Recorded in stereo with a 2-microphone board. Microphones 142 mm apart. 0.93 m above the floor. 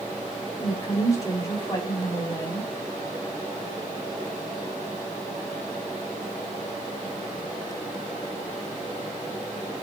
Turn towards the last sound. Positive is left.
turn(degrees=20)  # may be behind; listen again after turning